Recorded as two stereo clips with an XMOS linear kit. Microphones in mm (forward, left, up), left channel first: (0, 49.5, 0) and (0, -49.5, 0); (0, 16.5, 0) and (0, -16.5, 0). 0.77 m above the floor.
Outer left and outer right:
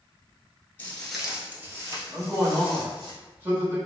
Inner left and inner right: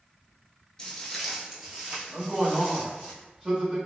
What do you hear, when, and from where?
0.8 s footsteps: 20° left (ahead or behind), 0.8 m; by 3.1 s 50° right (ahead or behind), 1.9 m
2.1 s a man speaking: 25° right (ahead or behind), 1.4 m